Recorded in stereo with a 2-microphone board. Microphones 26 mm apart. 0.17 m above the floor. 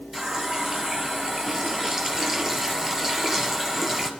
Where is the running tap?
15° right (ahead or behind), 1.9 m.